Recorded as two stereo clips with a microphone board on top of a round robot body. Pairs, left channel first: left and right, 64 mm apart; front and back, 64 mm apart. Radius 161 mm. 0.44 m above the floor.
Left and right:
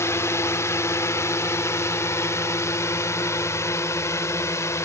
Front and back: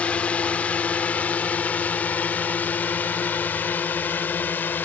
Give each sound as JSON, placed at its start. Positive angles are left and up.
{"t": 0.0, "sound": "a drone", "azimuth_deg": 65}